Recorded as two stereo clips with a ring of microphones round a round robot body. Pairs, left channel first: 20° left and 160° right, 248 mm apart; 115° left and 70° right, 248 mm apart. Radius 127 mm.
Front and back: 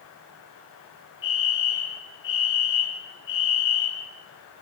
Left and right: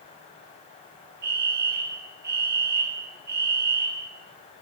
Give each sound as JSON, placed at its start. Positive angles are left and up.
{"t": 1.2, "sound": "a fire alarm", "azimuth_deg": -15, "distance_m": 5.5}